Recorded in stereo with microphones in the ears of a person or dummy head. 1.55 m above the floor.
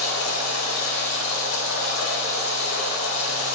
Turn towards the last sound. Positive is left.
turn(degrees=80)